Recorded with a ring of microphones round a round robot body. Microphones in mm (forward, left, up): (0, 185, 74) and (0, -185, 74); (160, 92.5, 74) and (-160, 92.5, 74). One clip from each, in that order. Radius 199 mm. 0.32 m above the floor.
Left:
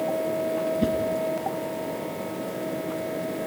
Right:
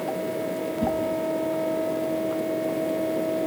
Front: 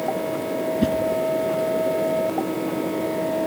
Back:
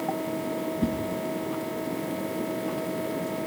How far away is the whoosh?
About 2.5 m.